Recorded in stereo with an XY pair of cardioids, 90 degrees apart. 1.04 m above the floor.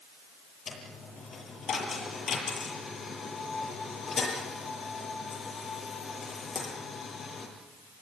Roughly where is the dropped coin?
Ahead left.